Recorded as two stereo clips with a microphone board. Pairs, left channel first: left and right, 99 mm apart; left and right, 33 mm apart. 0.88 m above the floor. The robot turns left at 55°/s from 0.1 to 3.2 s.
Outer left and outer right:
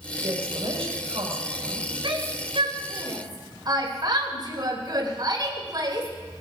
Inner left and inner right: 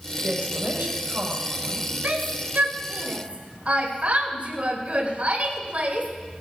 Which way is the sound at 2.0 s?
70° right (ahead or behind).